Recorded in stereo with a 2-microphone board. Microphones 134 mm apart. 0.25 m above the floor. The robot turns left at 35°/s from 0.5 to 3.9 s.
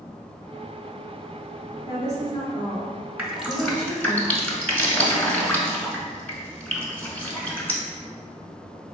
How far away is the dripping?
About 0.9 m.